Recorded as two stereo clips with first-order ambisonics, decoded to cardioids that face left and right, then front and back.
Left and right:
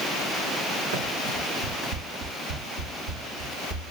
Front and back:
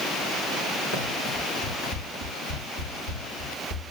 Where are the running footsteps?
65° right, 5 m; by 3.9 s 50° right, 5.5 m.